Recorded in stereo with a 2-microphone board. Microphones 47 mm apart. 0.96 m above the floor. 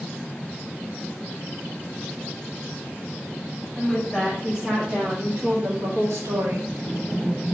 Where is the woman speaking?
Centre (ahead or behind), 3.5 m; by 6.7 s 65° right (ahead or behind), 2 m.